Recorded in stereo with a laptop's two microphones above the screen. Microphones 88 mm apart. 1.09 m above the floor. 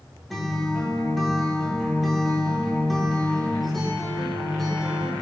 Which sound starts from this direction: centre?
A guitar, at 0.3 s.